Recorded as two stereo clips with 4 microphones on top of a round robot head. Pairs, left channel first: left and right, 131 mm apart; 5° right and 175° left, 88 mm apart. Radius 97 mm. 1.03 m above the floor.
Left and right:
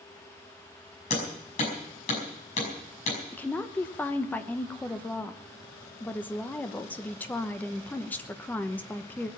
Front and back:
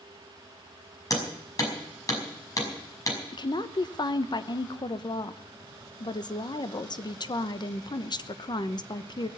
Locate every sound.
1.1 s hammering: 45° left, 5.5 m
3.3 s a woman speaking: 15° left, 1.0 m